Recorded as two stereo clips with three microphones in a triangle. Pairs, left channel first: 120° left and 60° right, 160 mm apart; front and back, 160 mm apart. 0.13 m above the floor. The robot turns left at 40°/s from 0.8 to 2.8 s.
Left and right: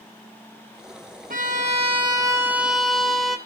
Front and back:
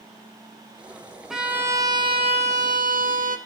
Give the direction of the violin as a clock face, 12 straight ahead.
3 o'clock.